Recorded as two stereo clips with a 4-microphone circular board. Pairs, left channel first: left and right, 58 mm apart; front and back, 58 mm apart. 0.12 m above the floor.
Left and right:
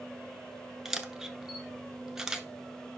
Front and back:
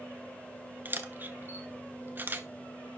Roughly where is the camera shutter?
Behind.